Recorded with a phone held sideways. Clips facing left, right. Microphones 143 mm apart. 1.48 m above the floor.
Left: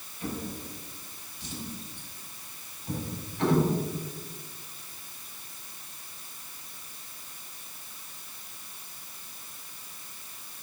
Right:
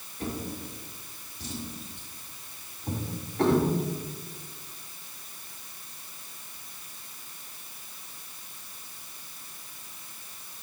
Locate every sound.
0.2 s a drawer: 70° right (ahead or behind), 3.5 m